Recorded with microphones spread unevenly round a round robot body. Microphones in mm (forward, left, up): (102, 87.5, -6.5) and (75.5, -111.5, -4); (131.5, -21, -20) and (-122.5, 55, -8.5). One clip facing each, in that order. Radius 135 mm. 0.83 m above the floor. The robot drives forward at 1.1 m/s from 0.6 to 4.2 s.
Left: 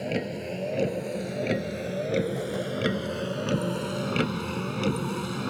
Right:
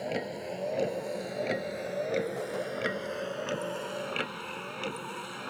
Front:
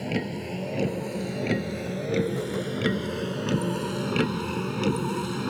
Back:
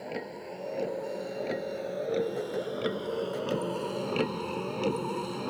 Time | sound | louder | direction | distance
0.0 | a vehicle | left 4 dB, front 8 dB | 20° left | ?